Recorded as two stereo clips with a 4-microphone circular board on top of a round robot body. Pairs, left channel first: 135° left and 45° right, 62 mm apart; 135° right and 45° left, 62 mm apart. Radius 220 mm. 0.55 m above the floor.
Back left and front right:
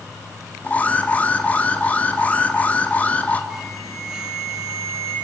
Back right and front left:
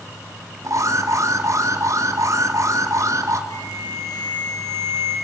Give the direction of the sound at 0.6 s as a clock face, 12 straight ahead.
10 o'clock.